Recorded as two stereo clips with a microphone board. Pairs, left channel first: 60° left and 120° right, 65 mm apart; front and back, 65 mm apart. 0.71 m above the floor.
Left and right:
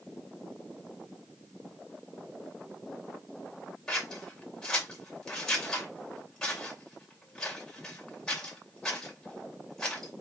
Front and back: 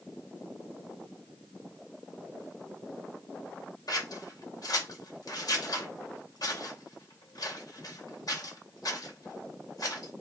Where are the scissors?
25° right, 2.5 m.